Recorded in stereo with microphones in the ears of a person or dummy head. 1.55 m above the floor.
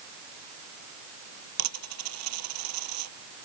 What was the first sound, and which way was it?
A dropped coin, 85° right.